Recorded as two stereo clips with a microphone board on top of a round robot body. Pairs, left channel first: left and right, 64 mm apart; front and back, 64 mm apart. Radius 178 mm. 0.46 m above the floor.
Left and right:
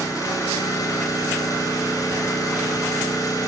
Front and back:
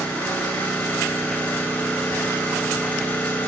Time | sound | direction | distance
0.0 | an engine running | 70° left | 3 m